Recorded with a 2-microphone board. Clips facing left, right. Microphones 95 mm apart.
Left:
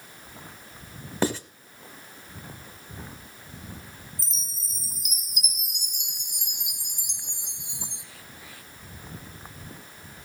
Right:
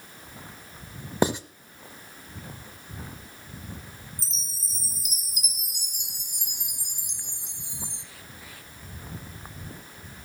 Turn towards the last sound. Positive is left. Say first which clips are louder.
# right 1 dB
turn(degrees=-35)  # may be behind; listen again after turning